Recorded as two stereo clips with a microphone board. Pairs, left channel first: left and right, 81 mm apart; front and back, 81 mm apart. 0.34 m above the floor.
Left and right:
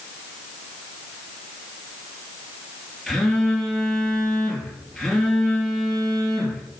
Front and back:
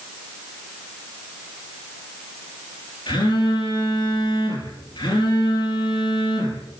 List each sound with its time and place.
3.1 s a phone buzzing: 5° left, 3 m